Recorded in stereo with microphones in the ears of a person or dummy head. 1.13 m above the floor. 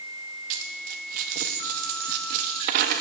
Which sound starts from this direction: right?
A dropped coin, at 0.5 s.